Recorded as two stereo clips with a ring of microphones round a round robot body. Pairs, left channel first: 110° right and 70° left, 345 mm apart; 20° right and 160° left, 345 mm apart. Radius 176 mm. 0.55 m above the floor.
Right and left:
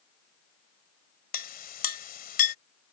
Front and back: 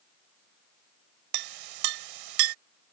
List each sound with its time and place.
1.3 s a clink: straight behind